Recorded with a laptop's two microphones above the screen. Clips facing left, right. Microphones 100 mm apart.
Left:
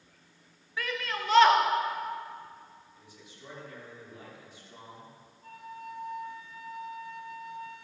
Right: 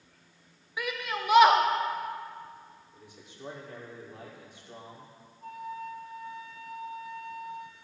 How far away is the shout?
About 0.8 m.